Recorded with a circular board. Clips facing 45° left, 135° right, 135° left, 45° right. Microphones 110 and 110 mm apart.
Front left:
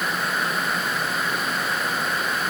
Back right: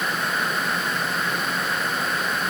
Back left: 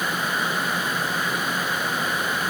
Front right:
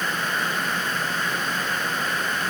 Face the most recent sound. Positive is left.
No sound to turn to.